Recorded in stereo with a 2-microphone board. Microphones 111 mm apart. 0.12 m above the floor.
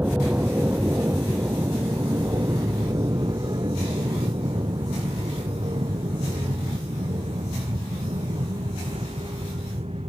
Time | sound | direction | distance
0.0 | an aircraft | 15° right (ahead or behind) | ?